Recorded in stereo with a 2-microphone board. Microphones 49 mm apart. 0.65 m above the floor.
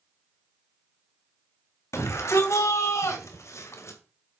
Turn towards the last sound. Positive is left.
turn(degrees=75)  # may be behind; listen again after turning